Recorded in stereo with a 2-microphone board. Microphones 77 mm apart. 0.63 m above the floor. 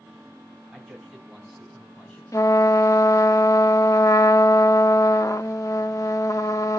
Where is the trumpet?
45° left (ahead or behind), 0.8 m.